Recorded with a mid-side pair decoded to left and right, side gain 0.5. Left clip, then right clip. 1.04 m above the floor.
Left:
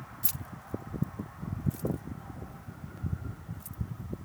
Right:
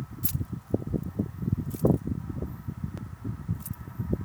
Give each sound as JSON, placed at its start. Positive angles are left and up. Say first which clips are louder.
{"t": 0.2, "sound": "keys jangling", "louder": "right 3 dB", "azimuth_deg": 15}